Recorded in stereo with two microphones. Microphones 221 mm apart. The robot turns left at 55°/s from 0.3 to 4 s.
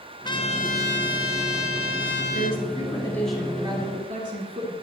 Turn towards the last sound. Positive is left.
turn(degrees=-35)